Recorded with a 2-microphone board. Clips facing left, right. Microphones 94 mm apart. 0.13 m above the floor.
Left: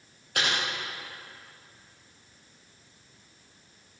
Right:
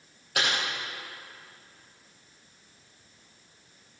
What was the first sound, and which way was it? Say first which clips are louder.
Typing on a keyboard: even; 5° right (ahead or behind).